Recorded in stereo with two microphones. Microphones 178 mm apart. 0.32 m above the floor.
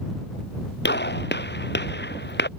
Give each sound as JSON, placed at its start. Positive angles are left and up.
{"t": 0.8, "sound": "a gunshot", "side_deg": 75}